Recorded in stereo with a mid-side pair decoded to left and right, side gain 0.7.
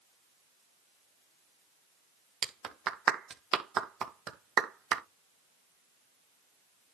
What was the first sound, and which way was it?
A clap, 45° right.